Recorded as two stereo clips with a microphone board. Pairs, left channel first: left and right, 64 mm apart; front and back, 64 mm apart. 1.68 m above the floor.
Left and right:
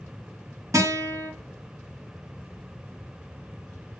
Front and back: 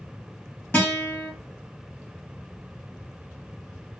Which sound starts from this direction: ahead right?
A guitar, at 0.7 s.